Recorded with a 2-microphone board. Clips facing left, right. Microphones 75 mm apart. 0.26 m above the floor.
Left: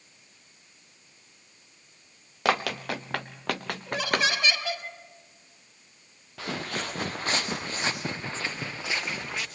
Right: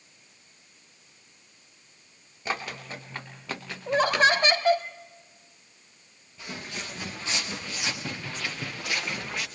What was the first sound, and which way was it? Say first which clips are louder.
Running footsteps: left 7 dB; 80° left.